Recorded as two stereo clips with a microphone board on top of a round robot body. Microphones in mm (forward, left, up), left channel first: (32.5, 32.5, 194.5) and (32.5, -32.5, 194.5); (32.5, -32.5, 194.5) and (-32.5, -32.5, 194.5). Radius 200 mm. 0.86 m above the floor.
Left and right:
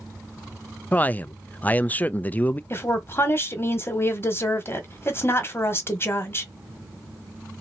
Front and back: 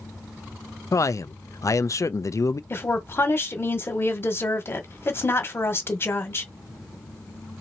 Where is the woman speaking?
45° left, 1.4 m.